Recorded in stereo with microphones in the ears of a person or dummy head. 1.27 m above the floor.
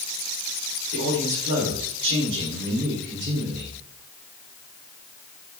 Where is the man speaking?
70° right (ahead or behind), 4 m; by 3.8 s 45° right (ahead or behind), 2.5 m.